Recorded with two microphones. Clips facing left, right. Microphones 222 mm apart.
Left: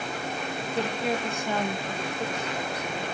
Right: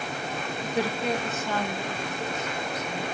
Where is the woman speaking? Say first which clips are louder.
Right 1 dB; 25° right (ahead or behind), 1.0 m; by 3.0 s 35° left (ahead or behind), 3.5 m.